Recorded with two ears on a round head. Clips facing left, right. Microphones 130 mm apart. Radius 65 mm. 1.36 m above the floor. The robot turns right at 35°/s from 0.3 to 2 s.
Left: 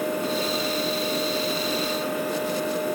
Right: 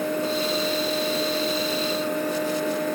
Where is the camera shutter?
I don't hear a camera shutter.